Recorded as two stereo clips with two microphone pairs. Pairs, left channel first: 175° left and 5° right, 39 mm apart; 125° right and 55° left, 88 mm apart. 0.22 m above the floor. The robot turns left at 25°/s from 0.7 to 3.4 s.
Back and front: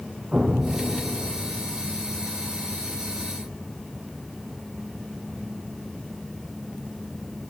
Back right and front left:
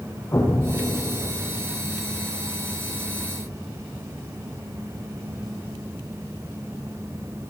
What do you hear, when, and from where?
0.3 s an explosion: 65° right, 6 m; by 1.7 s 95° right, 6 m